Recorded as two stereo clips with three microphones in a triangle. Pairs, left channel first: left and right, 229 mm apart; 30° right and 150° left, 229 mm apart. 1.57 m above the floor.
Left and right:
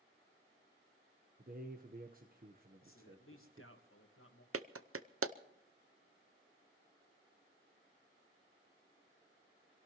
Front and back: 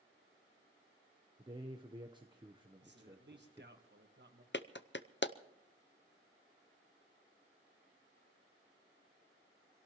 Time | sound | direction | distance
1.4 | a man speaking | 140° right | 1.0 m
2.8 | a man speaking | 110° left | 1.8 m
4.5 | a clap | 70° right | 0.7 m